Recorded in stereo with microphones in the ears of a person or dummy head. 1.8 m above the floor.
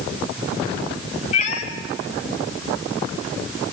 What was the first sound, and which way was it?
A cat meowing, 40° left (ahead or behind).